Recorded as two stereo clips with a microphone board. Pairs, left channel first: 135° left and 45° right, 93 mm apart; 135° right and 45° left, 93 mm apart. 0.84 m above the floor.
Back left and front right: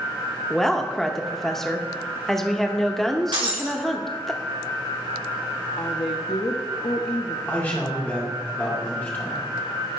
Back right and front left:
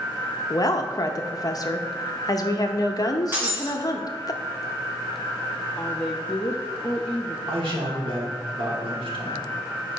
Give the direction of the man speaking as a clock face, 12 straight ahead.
10 o'clock.